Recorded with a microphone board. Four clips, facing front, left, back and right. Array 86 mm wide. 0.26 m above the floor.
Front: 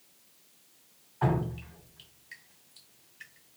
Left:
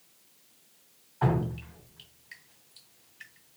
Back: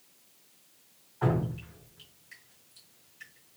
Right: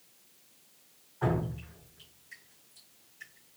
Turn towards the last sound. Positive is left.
turn(degrees=70)